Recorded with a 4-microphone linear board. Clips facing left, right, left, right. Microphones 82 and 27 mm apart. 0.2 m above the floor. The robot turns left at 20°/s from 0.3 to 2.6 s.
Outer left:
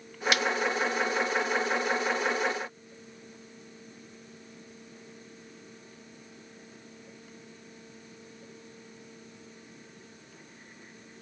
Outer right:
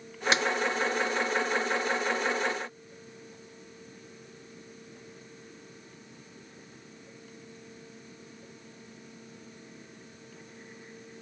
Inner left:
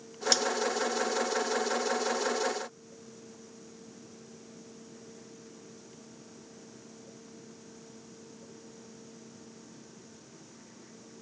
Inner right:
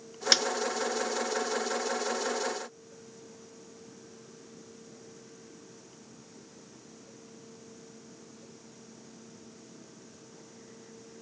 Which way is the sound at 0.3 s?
30° right (ahead or behind).